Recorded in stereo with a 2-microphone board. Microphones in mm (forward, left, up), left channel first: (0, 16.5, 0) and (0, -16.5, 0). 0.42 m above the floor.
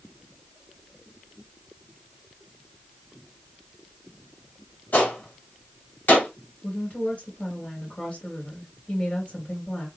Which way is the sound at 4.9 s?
65° left (ahead or behind).